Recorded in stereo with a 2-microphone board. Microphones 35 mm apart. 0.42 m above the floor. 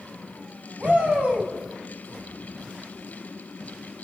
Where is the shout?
45° right (ahead or behind), 2.5 m.